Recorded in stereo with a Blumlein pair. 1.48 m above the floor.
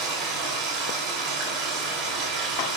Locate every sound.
0.0 s running water: 35° right, 3 m